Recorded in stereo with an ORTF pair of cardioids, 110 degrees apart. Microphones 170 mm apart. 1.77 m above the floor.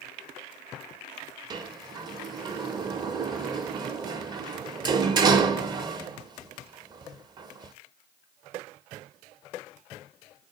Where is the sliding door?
25° right, 0.5 m.